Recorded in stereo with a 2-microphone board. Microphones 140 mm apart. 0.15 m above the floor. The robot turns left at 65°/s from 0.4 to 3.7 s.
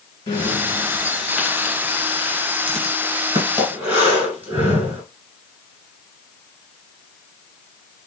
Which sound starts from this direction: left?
Breathing, at 0.3 s.